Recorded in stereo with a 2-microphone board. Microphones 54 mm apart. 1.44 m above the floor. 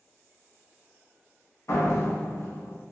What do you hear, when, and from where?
1.7 s a door slam: 65° left (ahead or behind), 0.7 m